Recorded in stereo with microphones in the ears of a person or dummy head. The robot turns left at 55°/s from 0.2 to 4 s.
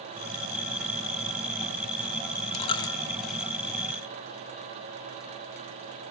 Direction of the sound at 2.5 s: 35° left (ahead or behind).